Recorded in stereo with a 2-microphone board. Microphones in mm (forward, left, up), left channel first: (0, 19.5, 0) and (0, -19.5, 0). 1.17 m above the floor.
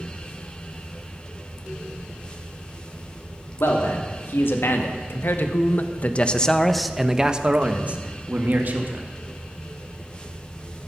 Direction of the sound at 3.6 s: 80° left.